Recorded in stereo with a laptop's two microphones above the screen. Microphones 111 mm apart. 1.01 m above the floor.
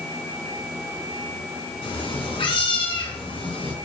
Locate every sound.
1.8 s a cat meowing: 60° left (ahead or behind), 3.5 m